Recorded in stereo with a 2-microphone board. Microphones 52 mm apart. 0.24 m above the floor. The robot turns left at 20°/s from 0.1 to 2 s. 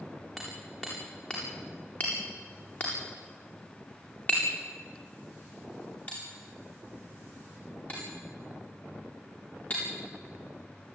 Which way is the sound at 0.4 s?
Centre (ahead or behind).